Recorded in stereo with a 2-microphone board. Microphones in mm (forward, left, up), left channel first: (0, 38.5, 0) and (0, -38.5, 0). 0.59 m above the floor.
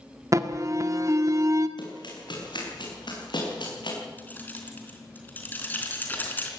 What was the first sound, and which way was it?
An alarm, 45° right (ahead or behind).